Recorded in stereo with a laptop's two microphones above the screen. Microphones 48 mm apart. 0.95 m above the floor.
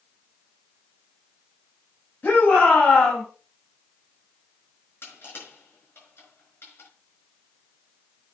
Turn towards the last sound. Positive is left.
turn(degrees=50)  # may be behind; listen again after turning